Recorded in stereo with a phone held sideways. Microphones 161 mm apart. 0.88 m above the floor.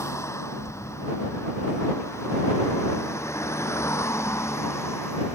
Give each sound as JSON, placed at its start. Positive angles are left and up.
{"t": 0.0, "sound": "a vehicle", "side_deg": 15}